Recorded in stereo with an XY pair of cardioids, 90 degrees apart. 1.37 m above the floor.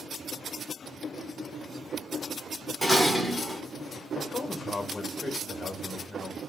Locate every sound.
2.8 s dishes clattering: 5° right, 2.5 m
4.1 s a man speaking: 35° left, 2 m